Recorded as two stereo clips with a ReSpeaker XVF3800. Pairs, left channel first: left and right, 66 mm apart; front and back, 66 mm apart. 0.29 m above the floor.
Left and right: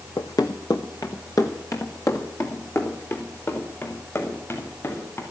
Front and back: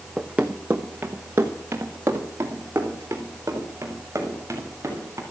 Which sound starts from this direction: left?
Running footsteps, at 0.2 s.